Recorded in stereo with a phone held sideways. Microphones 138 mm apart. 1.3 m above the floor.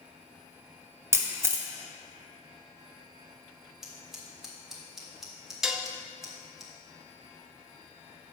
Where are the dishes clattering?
5° right (ahead or behind), 0.6 m.